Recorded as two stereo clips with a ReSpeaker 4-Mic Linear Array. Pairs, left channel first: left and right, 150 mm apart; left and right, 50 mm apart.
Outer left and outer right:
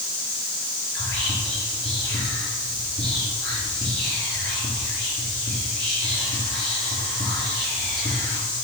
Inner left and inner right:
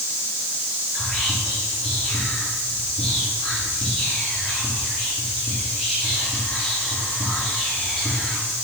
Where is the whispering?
5° left (ahead or behind), 3.5 m.